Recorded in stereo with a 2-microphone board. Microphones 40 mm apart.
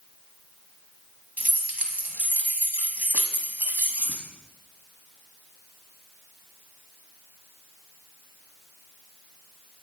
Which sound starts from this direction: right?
Keys jangling, at 1.4 s.